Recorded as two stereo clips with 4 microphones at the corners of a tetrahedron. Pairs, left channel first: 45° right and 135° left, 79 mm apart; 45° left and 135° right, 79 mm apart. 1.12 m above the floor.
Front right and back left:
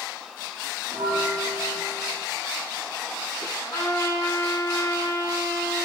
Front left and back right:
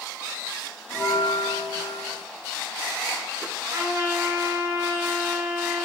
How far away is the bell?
About 2.5 m.